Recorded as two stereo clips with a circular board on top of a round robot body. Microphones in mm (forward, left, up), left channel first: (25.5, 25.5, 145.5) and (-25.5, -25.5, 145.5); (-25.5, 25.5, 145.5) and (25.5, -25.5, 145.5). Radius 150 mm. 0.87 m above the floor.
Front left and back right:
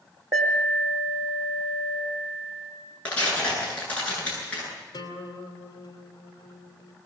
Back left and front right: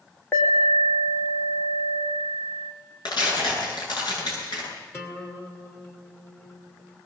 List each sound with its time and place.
0.3 s an alarm: 165° right, 4 m
3.0 s tearing paper: 115° left, 10 m
4.9 s a guitar: 75° left, 3 m